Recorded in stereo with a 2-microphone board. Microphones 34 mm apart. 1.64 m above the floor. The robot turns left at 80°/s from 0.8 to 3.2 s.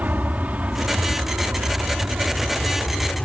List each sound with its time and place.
0.0 s an aircraft: 50° right (ahead or behind); by 3.2 s 30° left (ahead or behind)